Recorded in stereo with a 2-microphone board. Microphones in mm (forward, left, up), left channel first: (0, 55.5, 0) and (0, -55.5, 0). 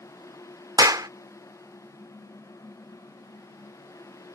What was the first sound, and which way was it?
A clap, 35° right (ahead or behind).